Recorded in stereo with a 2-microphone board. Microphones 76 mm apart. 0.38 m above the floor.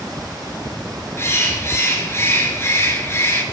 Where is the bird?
35° left (ahead or behind), 2.5 m.